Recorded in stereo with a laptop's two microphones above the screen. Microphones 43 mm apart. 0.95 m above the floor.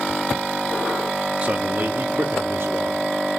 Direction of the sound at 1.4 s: 35° right (ahead or behind).